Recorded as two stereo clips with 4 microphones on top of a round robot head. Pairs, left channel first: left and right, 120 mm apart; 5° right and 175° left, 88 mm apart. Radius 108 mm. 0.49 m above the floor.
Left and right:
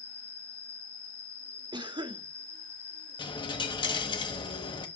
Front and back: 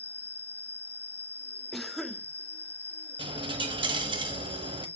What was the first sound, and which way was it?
An insect, 60° right.